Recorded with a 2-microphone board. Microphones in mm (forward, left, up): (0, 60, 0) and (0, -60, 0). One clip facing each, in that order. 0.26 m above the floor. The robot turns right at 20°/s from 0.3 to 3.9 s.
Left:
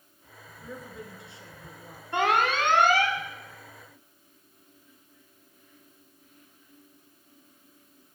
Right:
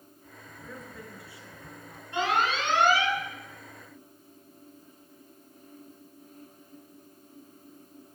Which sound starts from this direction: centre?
A woman speaking, at 0.6 s.